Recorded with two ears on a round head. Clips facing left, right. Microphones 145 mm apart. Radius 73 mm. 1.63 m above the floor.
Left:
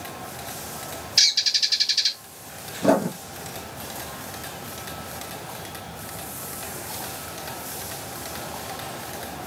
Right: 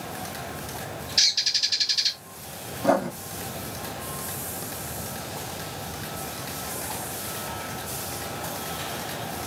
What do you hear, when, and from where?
1.2 s a bird: 30° left (ahead or behind), 1.3 m
2.8 s writing: 40° left (ahead or behind), 2.5 m